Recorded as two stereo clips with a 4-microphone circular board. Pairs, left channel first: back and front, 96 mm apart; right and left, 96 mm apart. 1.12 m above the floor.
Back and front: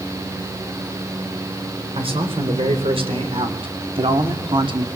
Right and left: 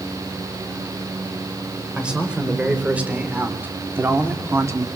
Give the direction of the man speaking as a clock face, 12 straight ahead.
12 o'clock.